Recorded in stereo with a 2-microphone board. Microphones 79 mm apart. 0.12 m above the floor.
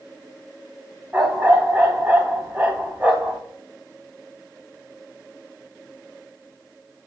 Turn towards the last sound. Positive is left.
turn(degrees=-20)  # may be behind; listen again after turning